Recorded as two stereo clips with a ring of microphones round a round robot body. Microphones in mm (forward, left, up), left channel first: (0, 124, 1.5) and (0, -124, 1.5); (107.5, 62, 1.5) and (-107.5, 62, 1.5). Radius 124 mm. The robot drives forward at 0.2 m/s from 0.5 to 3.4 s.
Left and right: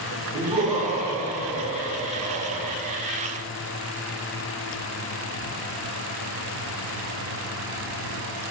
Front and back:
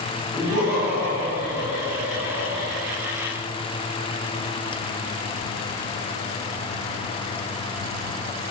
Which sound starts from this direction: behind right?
Laughter, at 0.3 s.